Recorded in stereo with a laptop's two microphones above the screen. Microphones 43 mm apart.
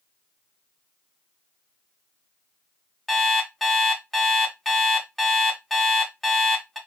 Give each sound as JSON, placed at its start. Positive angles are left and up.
{"t": 3.1, "sound": "an alarm clock", "side_deg": 5, "distance_m": 1.7}